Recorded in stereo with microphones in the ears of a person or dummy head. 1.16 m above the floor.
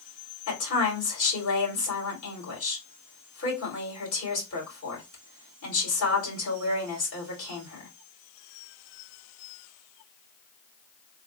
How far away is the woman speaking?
About 2.5 m.